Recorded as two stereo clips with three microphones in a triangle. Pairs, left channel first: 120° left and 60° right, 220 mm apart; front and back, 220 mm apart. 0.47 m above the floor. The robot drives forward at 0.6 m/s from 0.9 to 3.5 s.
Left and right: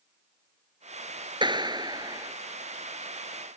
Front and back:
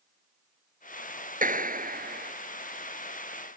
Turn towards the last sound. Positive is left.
turn(degrees=-140)